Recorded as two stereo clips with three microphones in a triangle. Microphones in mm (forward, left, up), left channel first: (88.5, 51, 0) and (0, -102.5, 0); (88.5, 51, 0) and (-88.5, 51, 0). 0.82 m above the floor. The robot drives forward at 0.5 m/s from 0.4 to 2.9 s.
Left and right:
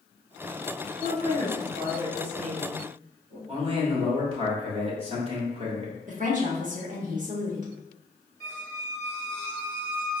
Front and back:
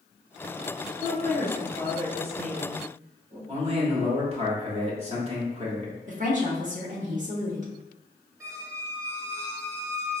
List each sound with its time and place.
1.0 s a woman speaking: 150° right, 1.7 m; by 3.4 s 160° right, 2.5 m
3.5 s a man speaking: 155° right, 1.2 m
6.1 s a woman speaking: 150° right, 1.0 m
8.4 s a squeak: 115° left, 0.9 m